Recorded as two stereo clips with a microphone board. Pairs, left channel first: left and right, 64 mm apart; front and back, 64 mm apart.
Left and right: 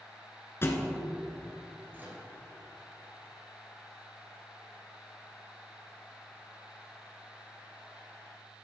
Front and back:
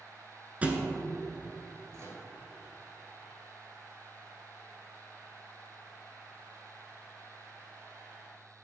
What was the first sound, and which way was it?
A thud, 120° left.